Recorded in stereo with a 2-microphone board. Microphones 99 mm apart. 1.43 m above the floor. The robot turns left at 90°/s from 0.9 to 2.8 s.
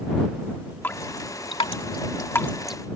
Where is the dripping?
20° left (ahead or behind); by 2.8 s 10° right (ahead or behind).